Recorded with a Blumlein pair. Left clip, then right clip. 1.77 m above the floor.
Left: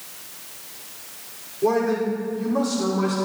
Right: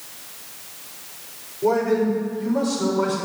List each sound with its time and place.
1.6 s a man speaking: 25° left, 6 m; by 3.2 s 15° left, 6 m